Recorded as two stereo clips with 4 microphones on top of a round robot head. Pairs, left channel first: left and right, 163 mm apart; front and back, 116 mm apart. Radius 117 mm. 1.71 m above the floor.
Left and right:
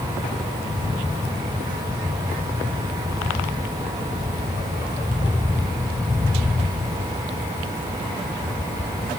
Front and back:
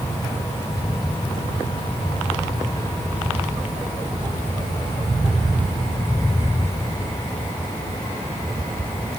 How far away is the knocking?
I don't hear knocking.